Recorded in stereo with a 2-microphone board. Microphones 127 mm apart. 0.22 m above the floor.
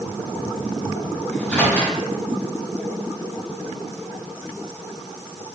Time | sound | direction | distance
1.3 | a microwave | 10° left (ahead or behind) | 1.0 m